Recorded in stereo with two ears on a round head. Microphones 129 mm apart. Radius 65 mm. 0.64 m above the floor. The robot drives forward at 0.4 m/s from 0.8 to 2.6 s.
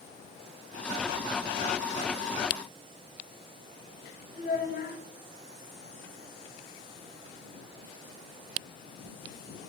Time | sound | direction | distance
4.3 | a child speaking | 55° left (ahead or behind) | 2.0 m